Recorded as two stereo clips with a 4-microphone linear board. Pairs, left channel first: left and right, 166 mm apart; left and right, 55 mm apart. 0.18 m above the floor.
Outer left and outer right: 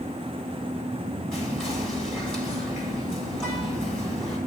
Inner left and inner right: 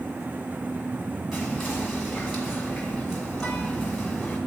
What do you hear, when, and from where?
1.3 s whispering: 5° left (ahead or behind), 1.4 m